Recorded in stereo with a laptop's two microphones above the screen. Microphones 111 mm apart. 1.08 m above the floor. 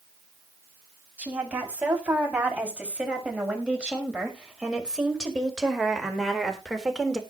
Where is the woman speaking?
15° right (ahead or behind), 7.5 m; by 7.2 s centre (ahead or behind), 3.5 m.